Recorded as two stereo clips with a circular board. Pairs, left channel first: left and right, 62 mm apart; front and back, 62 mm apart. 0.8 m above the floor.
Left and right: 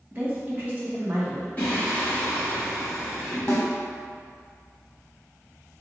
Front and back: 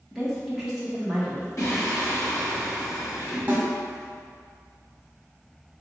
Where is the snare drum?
120° left, 0.9 m.